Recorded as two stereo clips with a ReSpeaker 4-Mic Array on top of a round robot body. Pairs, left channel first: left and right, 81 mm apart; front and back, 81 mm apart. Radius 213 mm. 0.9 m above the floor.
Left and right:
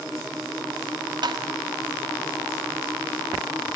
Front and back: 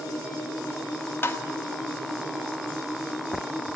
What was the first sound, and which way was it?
Tapping, 65° right.